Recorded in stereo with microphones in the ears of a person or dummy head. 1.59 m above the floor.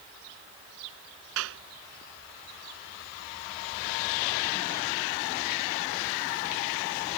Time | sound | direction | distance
1.4 | a clap | 75° right (ahead or behind) | ?